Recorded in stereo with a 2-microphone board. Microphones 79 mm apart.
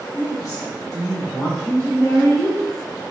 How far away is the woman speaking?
About 1.6 m.